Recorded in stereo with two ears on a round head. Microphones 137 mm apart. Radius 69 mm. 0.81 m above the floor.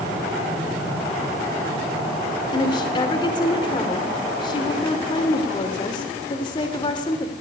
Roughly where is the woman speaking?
Left.